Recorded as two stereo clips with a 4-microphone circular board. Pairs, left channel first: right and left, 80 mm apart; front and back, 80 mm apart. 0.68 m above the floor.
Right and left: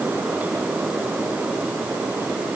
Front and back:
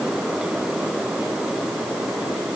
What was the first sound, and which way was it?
Only background noise.